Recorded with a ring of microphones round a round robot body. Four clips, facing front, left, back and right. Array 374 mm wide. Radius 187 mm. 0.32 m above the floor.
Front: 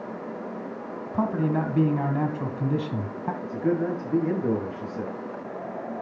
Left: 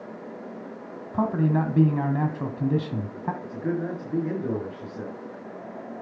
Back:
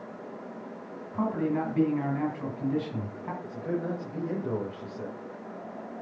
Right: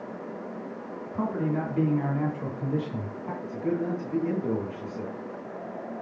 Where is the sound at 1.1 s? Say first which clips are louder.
Left 5 dB, front 3 dB; 50° left, 2.0 m.